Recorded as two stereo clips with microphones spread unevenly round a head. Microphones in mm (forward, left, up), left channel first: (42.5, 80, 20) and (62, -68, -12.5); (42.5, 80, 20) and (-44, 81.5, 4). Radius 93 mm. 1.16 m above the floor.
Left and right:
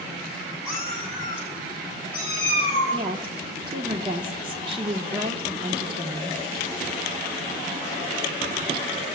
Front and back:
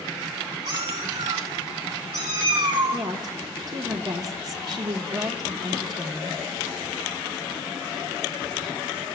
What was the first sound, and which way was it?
A cat meowing, 170° left.